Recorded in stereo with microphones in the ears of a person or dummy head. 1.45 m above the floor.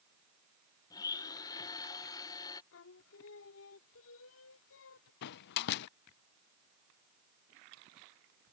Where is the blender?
20° left (ahead or behind).